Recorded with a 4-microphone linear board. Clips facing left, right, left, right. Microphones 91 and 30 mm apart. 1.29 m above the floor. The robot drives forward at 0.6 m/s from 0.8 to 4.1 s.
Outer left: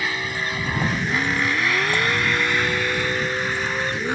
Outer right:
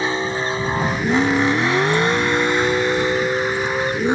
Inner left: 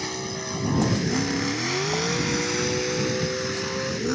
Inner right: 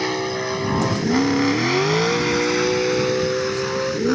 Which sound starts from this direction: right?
A vehicle, at 0.0 s.